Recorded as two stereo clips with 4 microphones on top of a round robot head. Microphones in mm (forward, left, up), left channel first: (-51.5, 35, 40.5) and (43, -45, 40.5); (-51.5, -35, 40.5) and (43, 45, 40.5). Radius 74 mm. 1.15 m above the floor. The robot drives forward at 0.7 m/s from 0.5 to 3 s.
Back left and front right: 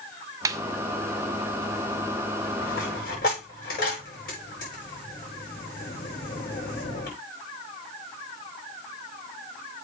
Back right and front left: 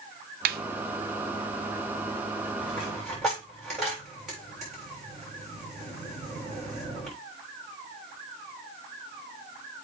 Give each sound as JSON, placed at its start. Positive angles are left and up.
{"t": 0.5, "sound": "a snare drum", "azimuth_deg": 25, "distance_m": 0.7}
{"t": 2.6, "sound": "a dropped coin", "azimuth_deg": 125, "distance_m": 7.0}